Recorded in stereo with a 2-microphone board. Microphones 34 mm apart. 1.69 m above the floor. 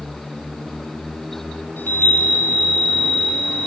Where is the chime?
80° left, 4.5 m.